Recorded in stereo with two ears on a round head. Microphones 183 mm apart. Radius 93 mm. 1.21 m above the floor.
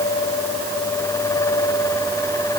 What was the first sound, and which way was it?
Only background noise.